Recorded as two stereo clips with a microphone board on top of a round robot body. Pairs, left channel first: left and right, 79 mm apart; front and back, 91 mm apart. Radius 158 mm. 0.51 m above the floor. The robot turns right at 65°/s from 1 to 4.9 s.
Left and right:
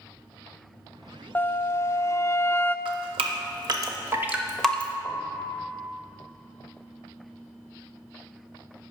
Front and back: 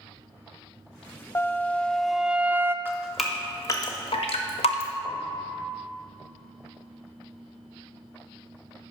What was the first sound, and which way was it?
A flute, 45° left.